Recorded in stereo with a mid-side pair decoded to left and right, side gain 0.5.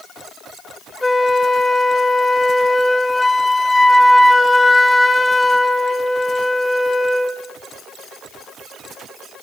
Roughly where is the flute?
Ahead.